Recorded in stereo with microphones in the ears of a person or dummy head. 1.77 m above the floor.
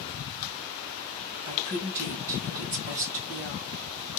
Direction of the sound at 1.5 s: 45° right (ahead or behind).